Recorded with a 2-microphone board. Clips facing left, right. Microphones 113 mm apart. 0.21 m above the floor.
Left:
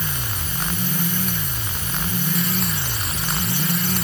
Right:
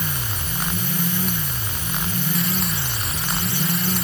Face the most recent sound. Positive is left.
No sound to turn to.